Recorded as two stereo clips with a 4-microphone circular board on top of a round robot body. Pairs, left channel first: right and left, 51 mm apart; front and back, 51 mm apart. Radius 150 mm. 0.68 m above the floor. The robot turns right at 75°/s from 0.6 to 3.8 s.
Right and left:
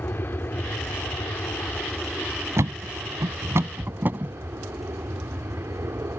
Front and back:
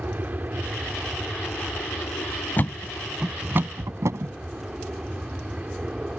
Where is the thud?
55° left; by 4.3 s 145° left.